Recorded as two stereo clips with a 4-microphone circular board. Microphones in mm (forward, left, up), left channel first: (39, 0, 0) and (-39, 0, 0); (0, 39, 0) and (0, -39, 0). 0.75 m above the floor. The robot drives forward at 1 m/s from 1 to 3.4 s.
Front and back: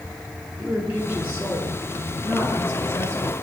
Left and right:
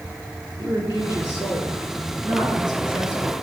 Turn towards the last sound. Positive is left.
turn(degrees=-125)